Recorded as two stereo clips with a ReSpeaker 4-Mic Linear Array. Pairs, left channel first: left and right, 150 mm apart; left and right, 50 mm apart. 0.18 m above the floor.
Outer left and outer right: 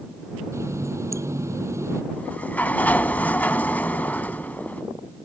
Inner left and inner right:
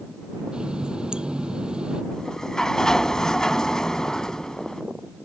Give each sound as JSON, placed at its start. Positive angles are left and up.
{"t": 0.5, "sound": "a running tap", "side_deg": -20}
{"t": 2.1, "sound": "a sliding door", "side_deg": 10}